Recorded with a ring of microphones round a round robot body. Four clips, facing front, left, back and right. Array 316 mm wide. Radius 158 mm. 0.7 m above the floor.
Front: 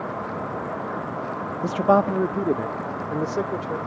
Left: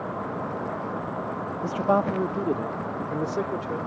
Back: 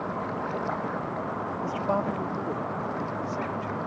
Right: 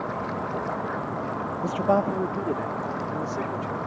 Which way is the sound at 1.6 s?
5° right.